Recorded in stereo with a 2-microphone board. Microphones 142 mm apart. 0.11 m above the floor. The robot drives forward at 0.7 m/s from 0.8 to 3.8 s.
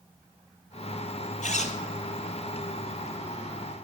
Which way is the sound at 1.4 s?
60° left (ahead or behind).